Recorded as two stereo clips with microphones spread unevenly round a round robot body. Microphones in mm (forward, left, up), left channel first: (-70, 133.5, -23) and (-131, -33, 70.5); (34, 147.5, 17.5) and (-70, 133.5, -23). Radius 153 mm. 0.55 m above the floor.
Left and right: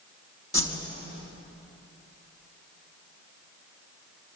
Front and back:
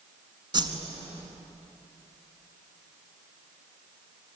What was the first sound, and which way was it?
A whoosh, 140° left.